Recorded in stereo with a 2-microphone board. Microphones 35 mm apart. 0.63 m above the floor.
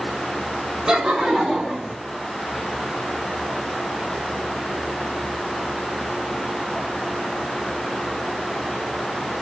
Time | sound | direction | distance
0.9 | laughter | 20° right (ahead or behind) | 0.9 m